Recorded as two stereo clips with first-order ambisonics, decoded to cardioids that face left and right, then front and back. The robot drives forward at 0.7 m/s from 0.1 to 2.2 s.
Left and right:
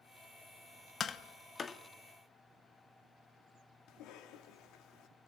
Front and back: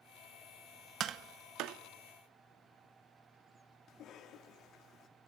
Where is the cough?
55° left, 3 m.